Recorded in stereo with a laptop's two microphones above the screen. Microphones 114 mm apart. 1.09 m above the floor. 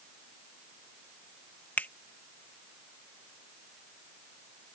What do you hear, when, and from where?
1.8 s a finger snap: 15° left (ahead or behind)